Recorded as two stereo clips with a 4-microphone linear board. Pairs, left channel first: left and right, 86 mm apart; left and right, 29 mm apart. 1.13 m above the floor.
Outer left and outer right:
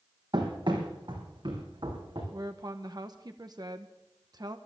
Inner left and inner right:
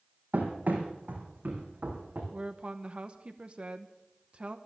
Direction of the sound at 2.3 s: 50° right (ahead or behind).